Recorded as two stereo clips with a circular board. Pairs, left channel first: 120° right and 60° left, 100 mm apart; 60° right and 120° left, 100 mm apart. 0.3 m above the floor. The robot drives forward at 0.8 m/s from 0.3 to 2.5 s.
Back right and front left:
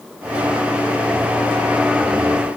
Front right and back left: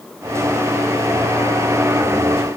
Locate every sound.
Only background noise.